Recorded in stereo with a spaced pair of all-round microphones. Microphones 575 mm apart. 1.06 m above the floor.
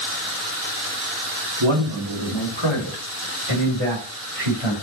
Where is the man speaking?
45° right (ahead or behind), 2 m; by 4.7 s 65° right (ahead or behind), 4 m.